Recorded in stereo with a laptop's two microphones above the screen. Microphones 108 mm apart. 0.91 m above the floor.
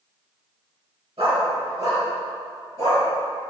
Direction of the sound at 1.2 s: 60° right (ahead or behind).